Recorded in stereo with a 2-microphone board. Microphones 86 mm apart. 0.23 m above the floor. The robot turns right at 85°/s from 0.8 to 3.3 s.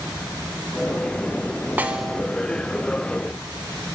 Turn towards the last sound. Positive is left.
turn(degrees=105)